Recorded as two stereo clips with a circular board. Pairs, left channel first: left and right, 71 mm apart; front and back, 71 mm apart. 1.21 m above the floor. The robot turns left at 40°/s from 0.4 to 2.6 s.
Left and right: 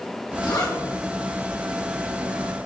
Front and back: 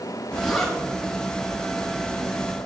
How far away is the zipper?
About 3 m.